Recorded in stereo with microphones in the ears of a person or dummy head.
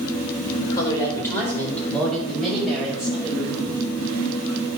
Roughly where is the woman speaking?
Left.